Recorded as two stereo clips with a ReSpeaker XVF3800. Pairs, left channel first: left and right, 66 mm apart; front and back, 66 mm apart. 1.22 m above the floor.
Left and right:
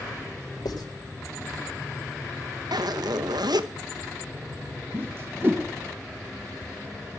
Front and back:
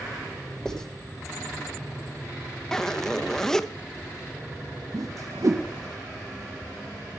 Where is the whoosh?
145° right, 1.3 m.